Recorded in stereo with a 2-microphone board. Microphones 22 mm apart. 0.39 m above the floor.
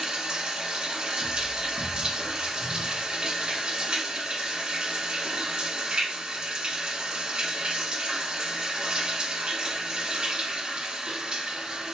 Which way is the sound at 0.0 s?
45° right (ahead or behind).